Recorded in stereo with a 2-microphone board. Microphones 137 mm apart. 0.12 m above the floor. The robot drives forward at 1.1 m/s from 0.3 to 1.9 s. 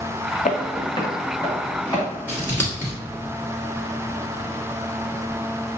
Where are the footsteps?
85° left, 0.6 m; by 2.1 s 20° left (ahead or behind), 4 m.